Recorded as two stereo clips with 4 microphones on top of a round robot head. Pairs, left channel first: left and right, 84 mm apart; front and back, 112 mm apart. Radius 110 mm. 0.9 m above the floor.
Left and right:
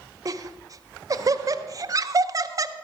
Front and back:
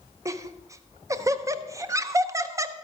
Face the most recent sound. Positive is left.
turn(degrees=-125)